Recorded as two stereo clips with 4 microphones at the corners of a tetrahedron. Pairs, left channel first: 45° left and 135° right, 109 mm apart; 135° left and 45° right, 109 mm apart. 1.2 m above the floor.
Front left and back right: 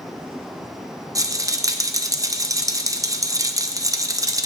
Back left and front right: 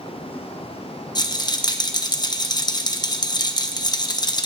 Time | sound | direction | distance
1.1 | a rattle | 175° left | 0.9 m